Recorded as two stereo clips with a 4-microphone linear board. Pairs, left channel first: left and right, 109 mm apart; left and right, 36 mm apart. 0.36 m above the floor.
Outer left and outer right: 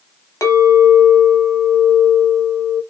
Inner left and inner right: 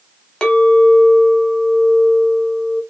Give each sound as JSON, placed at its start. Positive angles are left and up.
{"t": 0.4, "sound": "a clink", "side_deg": 25, "distance_m": 1.1}